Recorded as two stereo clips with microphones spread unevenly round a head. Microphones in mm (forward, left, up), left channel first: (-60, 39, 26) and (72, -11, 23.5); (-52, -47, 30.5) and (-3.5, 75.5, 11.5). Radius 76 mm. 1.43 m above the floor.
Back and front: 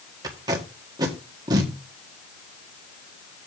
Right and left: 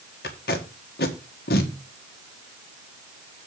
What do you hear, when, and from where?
0.2 s tape being pulled: 85° right, 1.7 m